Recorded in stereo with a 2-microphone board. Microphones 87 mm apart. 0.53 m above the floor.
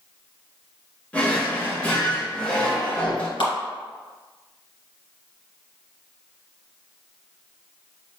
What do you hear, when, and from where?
1.1 s a drawer: 15° left (ahead or behind), 1.3 m
3.4 s a clap: 70° left (ahead or behind), 1.9 m